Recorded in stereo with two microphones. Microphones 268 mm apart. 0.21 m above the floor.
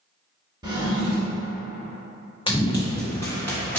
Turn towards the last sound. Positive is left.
turn(degrees=5)  # may be behind; listen again after turning